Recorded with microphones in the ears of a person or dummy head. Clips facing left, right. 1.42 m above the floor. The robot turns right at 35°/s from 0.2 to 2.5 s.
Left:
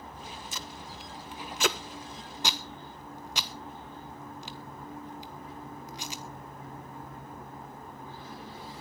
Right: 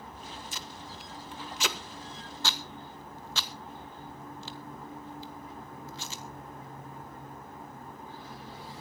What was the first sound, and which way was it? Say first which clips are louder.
Tape being pulled: left 1 dB; 70° left (ahead or behind).